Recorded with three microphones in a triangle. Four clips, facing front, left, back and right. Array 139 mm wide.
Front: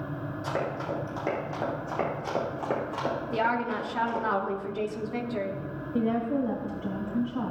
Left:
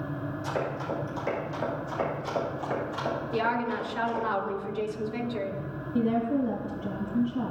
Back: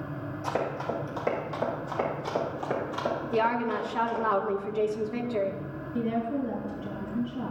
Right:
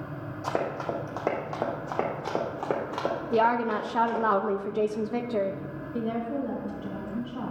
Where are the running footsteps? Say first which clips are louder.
Right 3 dB, back 1 dB; 95° right, 3.5 m; by 4.2 s 65° right, 5.5 m.